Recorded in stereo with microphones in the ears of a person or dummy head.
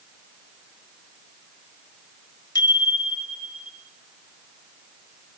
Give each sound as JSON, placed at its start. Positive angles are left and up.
{"t": 2.5, "sound": "a bicycle bell", "side_deg": 15, "distance_m": 4.0}